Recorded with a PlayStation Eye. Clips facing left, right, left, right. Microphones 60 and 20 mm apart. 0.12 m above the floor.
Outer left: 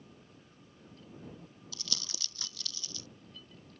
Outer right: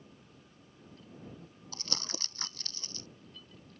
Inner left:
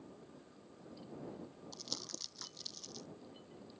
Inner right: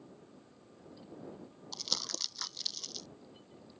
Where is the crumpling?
40° right (ahead or behind).